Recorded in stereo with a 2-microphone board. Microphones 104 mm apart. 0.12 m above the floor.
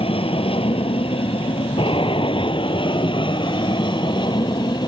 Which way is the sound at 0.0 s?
60° left (ahead or behind).